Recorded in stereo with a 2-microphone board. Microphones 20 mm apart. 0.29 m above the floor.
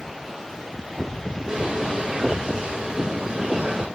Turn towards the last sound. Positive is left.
turn(degrees=-55)  # may be behind; listen again after turning